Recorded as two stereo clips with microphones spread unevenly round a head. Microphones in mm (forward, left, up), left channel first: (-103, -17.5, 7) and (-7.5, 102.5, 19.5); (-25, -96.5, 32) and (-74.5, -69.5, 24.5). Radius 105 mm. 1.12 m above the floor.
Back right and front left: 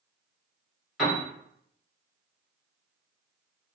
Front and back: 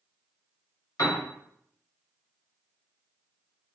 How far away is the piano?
About 1.0 m.